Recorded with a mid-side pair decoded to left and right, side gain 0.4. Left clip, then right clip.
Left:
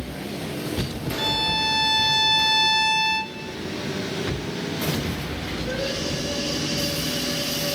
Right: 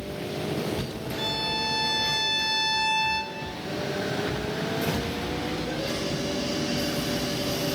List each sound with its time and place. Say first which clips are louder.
1.2 s a violin: left 5 dB; 45° left, 1.2 m